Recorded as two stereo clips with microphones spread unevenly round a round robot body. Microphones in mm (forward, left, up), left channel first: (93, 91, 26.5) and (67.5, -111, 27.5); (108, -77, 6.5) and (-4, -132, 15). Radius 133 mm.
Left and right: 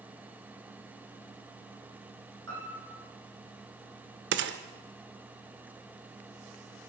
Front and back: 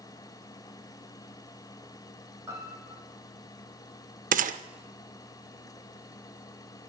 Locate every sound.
2.5 s a piano: 85° right, 8.5 m
4.3 s a gunshot: 145° right, 0.7 m